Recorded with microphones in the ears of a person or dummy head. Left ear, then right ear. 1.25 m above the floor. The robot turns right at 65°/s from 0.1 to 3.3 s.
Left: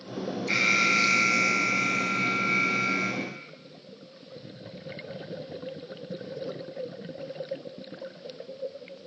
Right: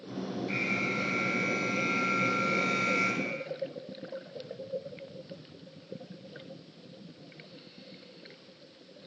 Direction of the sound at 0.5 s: 40° left.